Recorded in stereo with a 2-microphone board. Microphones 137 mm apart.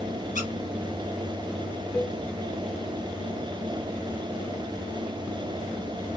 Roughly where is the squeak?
Left.